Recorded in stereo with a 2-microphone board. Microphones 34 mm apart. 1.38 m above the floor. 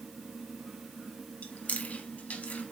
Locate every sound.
1.4 s chewing: 45° left (ahead or behind), 1.6 m